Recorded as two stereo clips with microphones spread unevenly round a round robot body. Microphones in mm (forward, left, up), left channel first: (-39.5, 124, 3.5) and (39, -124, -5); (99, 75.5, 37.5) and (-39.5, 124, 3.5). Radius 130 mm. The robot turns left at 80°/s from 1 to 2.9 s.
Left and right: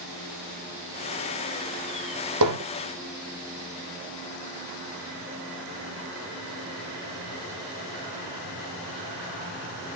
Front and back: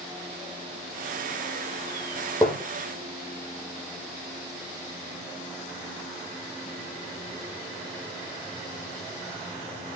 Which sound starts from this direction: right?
Hammering, at 2.4 s.